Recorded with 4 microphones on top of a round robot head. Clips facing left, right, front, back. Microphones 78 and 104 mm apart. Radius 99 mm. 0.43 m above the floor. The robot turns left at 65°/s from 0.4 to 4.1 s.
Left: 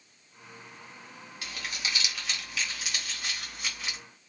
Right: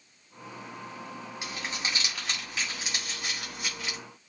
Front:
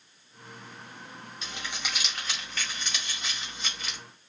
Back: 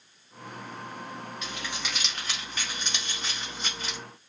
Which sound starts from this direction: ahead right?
Crumpling, at 1.4 s.